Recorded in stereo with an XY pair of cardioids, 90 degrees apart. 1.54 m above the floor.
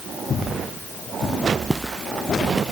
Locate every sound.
1.7 s footsteps: 10° right